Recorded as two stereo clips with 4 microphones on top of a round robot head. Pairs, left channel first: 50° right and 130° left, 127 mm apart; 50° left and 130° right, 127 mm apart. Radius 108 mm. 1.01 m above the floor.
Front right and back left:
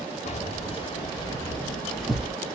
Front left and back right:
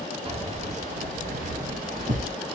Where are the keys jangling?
85° right, 1.1 m; by 2.3 s 150° right, 1.1 m.